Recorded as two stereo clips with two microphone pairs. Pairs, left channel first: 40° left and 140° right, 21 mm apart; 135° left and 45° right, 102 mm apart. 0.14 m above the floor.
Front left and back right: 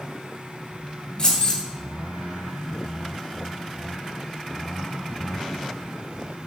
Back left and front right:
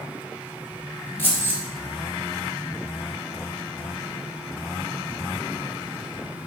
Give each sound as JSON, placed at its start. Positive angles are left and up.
{"t": 1.2, "sound": "keys jangling", "azimuth_deg": 80, "distance_m": 1.5}